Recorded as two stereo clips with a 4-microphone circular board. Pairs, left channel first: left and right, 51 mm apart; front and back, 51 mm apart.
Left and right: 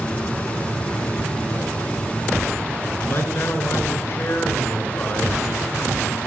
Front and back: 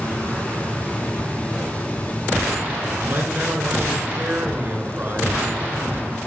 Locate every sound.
3.0 s a man speaking: 130° left, 3 m